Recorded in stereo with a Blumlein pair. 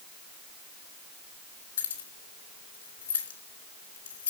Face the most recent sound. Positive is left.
turn(degrees=70)